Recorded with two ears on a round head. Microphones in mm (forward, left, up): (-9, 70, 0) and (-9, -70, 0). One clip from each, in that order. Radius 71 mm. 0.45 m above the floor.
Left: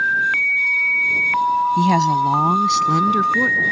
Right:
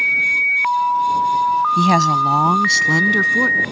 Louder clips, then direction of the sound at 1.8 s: Right 2 dB; 25° right (ahead or behind).